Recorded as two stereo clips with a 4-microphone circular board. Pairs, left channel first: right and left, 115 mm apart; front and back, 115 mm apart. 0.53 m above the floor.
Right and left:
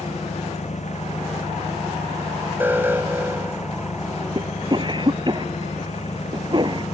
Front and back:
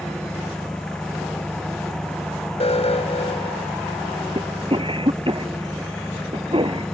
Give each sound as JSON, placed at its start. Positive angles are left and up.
{"t": 0.0, "sound": "an engine running", "azimuth_deg": -85}
{"t": 2.6, "sound": "an alarm", "azimuth_deg": 20}
{"t": 4.3, "sound": "a cough", "azimuth_deg": 140}